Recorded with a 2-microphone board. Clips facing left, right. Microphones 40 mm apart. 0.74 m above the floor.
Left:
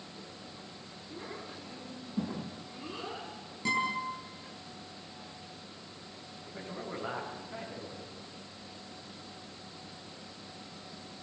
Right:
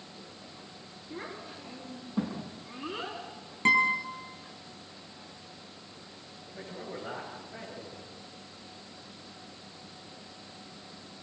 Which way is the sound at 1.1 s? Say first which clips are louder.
Right 3 dB; 30° right (ahead or behind).